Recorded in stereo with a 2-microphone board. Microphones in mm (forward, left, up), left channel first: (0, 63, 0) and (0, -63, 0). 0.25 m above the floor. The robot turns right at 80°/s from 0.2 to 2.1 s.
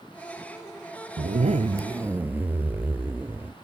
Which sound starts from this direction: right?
A zipper, at 1.2 s.